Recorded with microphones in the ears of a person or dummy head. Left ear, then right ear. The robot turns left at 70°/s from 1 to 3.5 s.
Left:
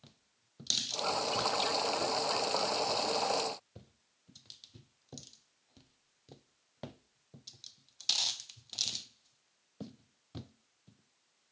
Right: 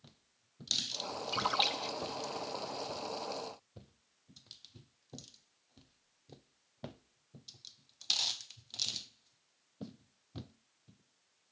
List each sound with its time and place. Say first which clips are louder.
1.3 s a splash: right 5 dB; 15° right (ahead or behind); by 2.3 s 80° right